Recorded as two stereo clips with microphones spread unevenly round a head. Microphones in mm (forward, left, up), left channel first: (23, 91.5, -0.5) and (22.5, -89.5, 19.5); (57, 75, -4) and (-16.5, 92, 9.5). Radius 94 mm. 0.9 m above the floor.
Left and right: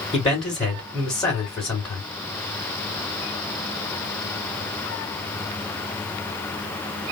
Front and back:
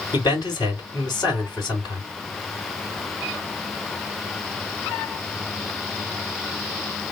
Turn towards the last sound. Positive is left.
turn(degrees=20)